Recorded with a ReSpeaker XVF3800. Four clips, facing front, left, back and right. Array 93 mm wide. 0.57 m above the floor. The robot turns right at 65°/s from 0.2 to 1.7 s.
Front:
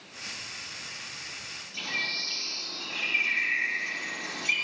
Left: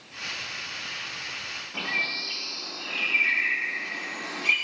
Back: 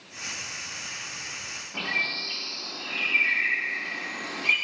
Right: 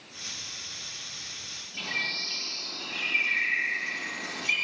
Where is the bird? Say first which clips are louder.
Left 3 dB, back 4 dB; 130° left, 8 m.